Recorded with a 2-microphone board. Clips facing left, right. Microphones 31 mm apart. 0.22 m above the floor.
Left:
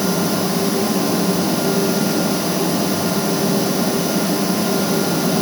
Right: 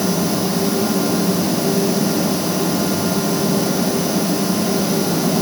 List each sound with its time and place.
Only background noise.